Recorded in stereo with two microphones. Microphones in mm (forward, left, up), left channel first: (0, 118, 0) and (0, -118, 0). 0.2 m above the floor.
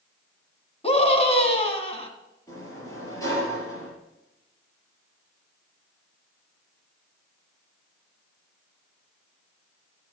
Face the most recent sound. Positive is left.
turn(degrees=15)  # may be behind; listen again after turning